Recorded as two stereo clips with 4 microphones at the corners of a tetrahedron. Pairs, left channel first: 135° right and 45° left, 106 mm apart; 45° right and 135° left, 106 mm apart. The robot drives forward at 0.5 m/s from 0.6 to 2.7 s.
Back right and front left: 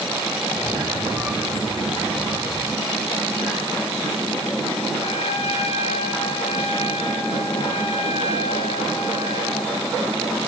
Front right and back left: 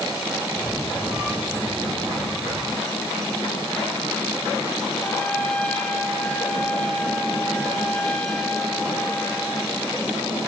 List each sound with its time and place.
5.0 s a trumpet: 125° right, 1.9 m